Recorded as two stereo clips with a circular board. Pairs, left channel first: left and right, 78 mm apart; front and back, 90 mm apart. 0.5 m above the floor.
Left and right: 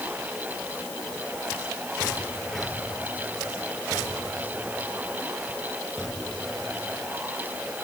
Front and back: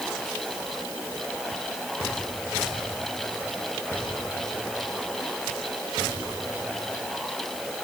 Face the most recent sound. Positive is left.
No sound to turn to.